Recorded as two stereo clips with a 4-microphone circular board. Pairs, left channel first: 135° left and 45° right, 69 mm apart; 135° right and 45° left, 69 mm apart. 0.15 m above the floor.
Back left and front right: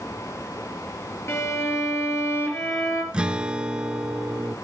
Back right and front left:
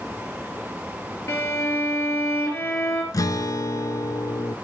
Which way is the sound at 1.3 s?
Straight behind.